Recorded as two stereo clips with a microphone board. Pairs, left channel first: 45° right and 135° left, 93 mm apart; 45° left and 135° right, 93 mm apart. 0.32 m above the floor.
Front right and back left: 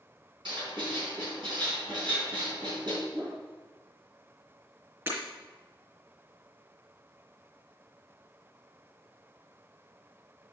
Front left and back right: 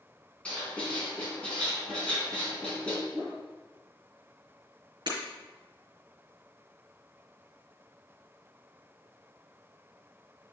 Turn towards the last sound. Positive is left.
turn(degrees=-160)